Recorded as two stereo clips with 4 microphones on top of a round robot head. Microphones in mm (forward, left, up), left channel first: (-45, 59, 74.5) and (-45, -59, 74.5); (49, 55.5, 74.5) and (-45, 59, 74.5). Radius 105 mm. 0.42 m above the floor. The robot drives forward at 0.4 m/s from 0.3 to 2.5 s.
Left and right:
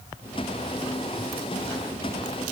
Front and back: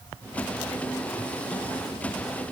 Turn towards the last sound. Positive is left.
No sound to turn to.